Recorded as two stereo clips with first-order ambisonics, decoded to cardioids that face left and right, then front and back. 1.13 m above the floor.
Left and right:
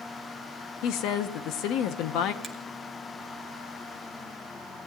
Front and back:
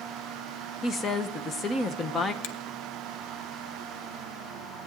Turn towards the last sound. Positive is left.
turn(degrees=-10)